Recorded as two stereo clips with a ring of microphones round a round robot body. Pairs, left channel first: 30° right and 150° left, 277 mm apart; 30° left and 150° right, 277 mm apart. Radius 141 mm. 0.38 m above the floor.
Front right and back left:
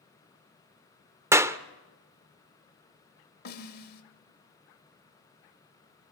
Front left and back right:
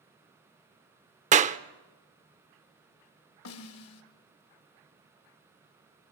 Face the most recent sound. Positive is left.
turn(degrees=15)